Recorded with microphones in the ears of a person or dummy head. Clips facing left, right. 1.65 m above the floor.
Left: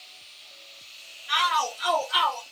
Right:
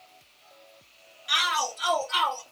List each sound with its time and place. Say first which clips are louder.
1.3 s a shout: left 3 dB; 50° right (ahead or behind), 2.5 m; by 2.4 s 45° right (ahead or behind), 4 m